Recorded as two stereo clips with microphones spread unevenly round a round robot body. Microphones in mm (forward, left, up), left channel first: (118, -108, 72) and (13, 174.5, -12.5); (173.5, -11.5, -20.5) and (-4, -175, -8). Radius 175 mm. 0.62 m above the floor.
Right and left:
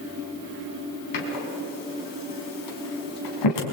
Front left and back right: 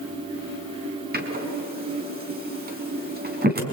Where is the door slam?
85° right, 4.5 m.